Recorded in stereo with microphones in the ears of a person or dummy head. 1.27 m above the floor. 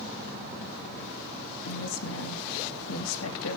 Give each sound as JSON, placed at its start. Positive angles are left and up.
{"t": 1.6, "sound": "a woman speaking", "side_deg": 75, "distance_m": 2.5}